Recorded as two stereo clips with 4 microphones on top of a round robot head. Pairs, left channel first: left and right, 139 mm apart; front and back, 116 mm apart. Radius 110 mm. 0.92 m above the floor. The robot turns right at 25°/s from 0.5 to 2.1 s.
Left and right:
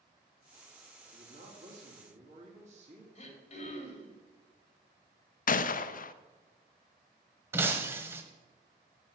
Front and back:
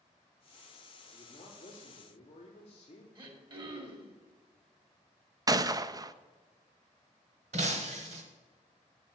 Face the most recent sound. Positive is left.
turn(degrees=-160)